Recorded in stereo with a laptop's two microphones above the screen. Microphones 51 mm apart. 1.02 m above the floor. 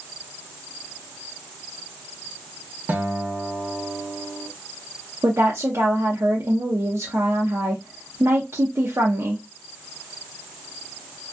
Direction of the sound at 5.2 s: 55° right (ahead or behind).